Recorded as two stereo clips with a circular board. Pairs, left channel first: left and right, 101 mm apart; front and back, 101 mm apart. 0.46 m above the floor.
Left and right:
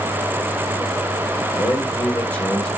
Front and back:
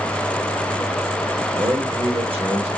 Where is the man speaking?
150° left, 1.3 m; by 2.7 s 175° left, 1.9 m.